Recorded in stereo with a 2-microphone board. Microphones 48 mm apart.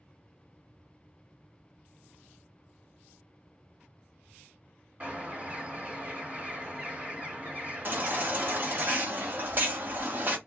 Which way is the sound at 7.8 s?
40° right (ahead or behind).